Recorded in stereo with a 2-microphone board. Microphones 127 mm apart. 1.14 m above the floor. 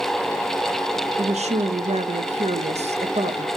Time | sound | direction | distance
1.2 | a woman speaking | 60° right (ahead or behind) | 0.9 m